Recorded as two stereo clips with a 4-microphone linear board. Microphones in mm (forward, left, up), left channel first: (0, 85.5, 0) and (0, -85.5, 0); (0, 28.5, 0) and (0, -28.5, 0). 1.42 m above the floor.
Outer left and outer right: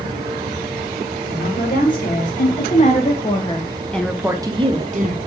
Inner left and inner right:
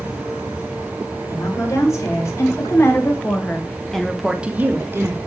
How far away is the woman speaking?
About 3.5 m.